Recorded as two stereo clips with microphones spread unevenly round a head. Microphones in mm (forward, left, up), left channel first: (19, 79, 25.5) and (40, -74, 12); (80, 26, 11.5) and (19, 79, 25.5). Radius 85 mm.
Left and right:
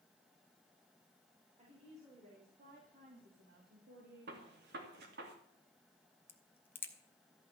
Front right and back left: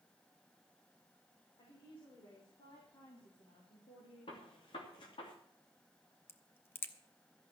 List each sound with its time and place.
1.6 s a woman speaking: 35° right, 5 m; by 4.7 s 90° right, 3 m
4.3 s a gunshot: 70° right, 3 m
6.3 s a crack: 20° left, 1.6 m